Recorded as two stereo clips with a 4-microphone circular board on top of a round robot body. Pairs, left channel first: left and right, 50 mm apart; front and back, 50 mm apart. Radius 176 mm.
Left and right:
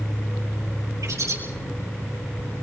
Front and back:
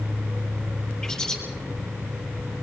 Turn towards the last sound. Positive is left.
turn(degrees=-80)